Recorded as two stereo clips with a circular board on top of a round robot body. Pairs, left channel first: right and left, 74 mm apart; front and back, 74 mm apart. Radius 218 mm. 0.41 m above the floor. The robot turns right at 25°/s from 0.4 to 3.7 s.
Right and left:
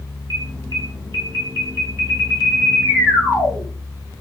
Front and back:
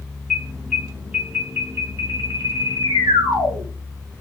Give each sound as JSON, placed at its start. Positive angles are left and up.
{"t": 0.3, "sound": "an alarm", "azimuth_deg": 90, "distance_m": 6.5}